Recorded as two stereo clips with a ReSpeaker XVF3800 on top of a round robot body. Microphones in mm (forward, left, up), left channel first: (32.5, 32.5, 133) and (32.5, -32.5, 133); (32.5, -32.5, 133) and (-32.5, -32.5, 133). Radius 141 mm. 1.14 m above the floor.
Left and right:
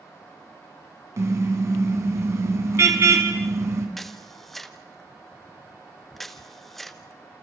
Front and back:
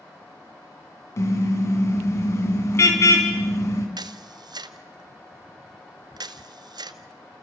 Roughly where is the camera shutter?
Behind.